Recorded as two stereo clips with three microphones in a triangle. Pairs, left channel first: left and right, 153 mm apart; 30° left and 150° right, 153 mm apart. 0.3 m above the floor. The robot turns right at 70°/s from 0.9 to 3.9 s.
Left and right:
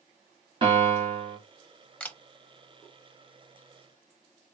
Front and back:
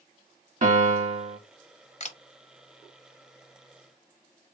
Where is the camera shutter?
10° left, 0.6 m; by 2.2 s 20° left, 0.6 m.